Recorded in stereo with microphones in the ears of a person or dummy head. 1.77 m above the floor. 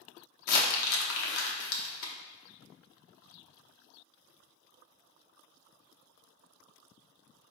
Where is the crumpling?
70° left (ahead or behind), 0.6 m.